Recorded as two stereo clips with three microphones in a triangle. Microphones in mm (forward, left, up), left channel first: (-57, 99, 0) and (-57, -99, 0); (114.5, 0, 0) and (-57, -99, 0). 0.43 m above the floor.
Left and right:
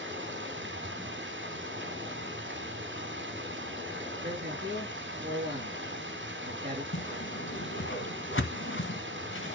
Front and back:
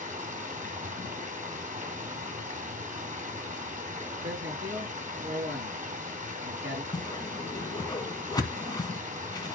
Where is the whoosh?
100° left, 1.5 m.